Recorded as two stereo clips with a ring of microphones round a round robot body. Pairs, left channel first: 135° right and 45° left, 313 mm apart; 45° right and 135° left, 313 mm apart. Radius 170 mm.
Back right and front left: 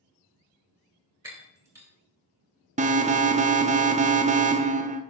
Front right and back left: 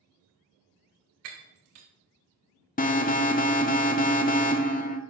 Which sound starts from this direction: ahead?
An alarm, at 2.8 s.